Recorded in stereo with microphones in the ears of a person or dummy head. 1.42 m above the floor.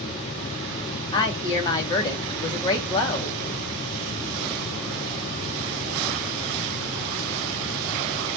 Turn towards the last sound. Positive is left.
turn(degrees=25)  # may be behind; listen again after turning